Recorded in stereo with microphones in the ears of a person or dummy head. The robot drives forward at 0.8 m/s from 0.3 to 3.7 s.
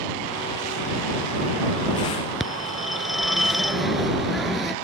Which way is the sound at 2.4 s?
5° left (ahead or behind).